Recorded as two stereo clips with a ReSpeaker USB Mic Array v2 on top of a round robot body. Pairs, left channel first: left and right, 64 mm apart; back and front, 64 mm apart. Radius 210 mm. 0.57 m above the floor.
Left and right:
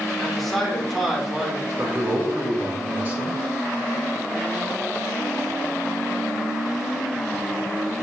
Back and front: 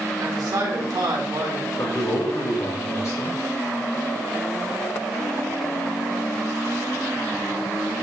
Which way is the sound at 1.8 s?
150° right.